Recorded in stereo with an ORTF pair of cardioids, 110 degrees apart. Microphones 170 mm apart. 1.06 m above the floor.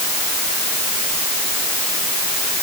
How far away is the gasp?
No gasp in this recording.